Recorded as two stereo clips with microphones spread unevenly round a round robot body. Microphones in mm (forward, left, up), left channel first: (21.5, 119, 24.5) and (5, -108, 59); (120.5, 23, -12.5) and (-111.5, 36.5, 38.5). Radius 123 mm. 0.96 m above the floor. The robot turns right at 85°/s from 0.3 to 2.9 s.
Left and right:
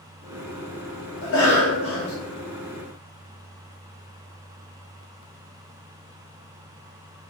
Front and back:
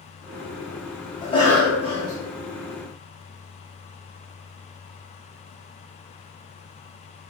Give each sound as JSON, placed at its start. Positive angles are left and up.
{"t": 1.2, "sound": "a cough", "azimuth_deg": 50, "distance_m": 2.0}